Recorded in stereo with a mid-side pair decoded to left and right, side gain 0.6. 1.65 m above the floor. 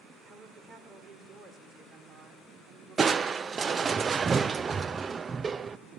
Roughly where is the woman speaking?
Ahead right.